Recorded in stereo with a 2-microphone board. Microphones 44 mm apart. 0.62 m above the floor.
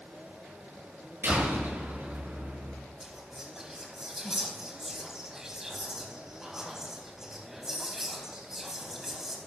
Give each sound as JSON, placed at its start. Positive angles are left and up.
{"t": 1.2, "sound": "a door slam", "side_deg": -50, "distance_m": 9.0}
{"t": 3.0, "sound": "whispering", "side_deg": -10, "distance_m": 4.0}